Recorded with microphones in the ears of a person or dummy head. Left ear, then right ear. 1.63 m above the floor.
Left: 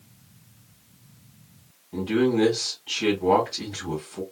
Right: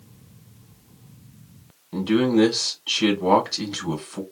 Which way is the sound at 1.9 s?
50° right (ahead or behind).